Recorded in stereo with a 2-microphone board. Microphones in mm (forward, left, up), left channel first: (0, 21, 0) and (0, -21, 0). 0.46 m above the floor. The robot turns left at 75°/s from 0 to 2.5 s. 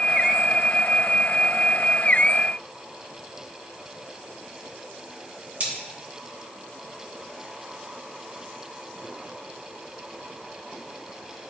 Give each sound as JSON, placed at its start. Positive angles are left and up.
{"t": 5.6, "sound": "cutlery clinking", "side_deg": -40, "distance_m": 2.5}